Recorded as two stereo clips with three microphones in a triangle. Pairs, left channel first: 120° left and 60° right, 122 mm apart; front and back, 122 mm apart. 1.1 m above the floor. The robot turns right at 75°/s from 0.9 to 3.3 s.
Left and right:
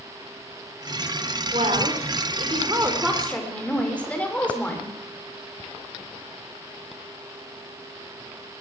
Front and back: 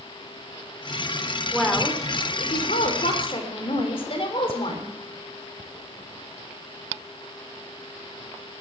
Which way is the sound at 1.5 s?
95° right.